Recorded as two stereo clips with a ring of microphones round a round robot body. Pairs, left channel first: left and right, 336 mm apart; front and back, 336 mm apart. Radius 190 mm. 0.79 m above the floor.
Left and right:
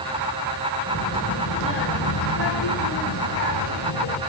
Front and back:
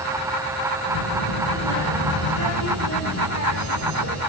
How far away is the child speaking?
About 8 m.